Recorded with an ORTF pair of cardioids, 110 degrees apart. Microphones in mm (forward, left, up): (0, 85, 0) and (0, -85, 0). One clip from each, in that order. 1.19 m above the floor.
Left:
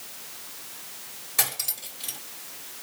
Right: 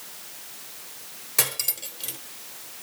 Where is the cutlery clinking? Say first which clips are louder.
Right 2 dB; 30° right, 2 m.